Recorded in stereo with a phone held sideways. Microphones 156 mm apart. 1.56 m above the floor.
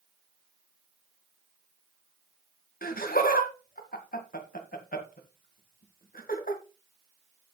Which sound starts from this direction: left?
Laughter, at 2.8 s.